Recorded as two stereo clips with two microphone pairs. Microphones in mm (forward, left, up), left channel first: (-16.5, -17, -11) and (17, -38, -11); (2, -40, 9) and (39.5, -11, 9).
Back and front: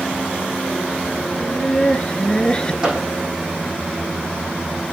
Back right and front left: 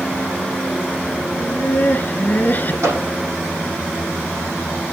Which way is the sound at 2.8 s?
40° left.